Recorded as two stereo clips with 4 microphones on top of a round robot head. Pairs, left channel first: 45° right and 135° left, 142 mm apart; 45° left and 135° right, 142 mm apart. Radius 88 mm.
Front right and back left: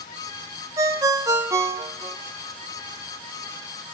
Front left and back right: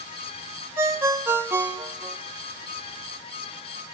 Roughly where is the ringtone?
Behind.